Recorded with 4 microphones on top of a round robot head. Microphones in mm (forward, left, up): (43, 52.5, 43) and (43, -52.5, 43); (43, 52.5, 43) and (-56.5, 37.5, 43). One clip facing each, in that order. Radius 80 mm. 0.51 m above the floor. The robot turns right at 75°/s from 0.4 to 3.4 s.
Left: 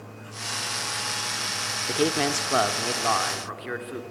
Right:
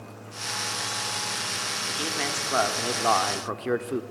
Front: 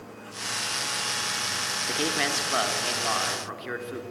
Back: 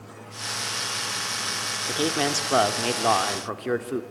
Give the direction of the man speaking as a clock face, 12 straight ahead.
8 o'clock.